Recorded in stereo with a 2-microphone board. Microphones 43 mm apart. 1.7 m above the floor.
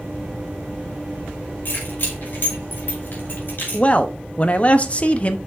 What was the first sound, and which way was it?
Keys jangling, 50° left (ahead or behind).